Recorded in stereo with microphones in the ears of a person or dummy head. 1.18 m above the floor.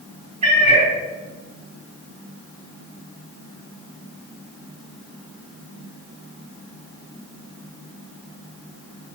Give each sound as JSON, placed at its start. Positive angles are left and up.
{"t": 0.4, "sound": "a cat meowing", "side_deg": -30, "distance_m": 3.5}